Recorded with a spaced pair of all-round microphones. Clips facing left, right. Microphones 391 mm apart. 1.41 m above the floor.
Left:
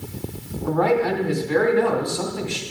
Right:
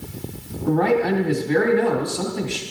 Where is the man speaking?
40° right (ahead or behind), 2.5 m.